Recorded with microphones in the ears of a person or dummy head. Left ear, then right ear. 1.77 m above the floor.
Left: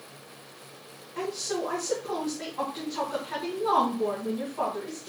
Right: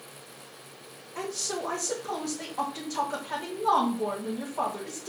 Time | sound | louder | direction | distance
1.1 | a woman speaking | left 2 dB | 30° right (ahead or behind) | 2 m